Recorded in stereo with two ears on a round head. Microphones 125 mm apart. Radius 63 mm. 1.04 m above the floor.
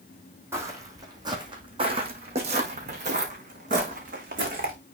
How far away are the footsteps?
About 2 m.